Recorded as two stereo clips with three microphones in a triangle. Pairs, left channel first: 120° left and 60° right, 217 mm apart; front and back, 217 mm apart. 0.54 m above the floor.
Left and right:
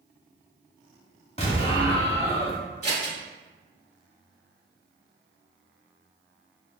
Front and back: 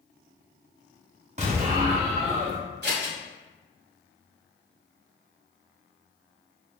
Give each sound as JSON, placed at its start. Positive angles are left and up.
{"t": 1.4, "sound": "an explosion", "azimuth_deg": 155, "distance_m": 0.8}
{"t": 2.8, "sound": "scissors", "azimuth_deg": 170, "distance_m": 1.3}